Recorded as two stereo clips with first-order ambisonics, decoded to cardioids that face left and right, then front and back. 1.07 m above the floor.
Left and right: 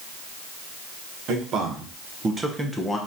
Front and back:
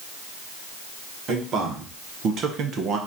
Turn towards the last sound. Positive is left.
turn(degrees=165)